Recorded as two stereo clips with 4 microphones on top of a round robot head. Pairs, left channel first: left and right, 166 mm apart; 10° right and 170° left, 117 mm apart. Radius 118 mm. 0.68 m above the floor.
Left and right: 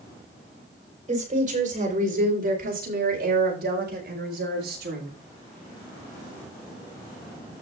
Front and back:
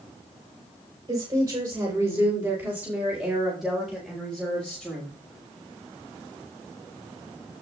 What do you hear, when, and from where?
1.1 s a woman speaking: 125° right, 4 m; by 5.1 s 85° right, 5.5 m